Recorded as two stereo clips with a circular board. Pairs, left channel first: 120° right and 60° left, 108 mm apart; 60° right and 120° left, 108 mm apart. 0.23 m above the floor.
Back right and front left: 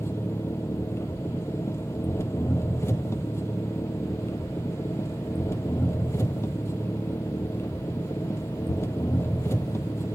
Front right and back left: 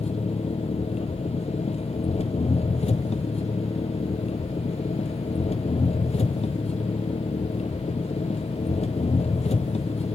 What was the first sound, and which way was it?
An engine running, 55° right.